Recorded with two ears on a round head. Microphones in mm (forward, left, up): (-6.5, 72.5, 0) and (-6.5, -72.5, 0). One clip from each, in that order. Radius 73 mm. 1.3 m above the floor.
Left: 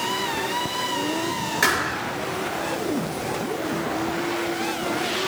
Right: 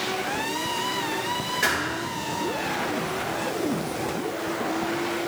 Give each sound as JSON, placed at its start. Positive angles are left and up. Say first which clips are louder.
{"t": 1.6, "sound": "a thud", "louder": "left 5 dB", "side_deg": 40, "distance_m": 9.0}